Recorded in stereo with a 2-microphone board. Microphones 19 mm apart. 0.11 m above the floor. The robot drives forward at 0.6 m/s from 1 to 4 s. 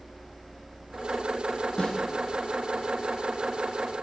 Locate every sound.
1.8 s a snare drum: 65° left (ahead or behind), 2.5 m